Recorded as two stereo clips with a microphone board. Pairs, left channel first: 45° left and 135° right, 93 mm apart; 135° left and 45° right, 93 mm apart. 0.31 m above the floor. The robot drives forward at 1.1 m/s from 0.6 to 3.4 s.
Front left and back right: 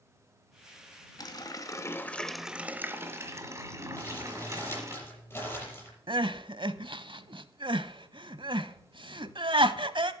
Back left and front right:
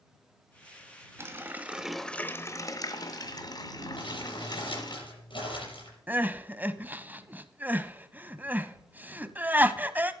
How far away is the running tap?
About 1.3 m.